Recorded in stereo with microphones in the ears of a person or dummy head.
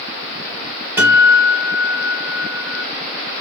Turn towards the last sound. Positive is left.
turn(degrees=-10)  # may be behind; listen again after turning